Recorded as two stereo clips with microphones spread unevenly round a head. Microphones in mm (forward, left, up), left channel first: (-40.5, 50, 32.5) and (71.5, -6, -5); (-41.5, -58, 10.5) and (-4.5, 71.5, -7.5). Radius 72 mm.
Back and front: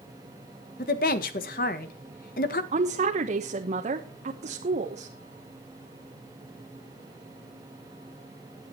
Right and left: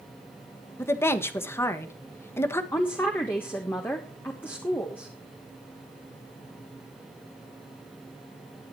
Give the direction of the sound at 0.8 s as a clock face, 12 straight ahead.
6 o'clock.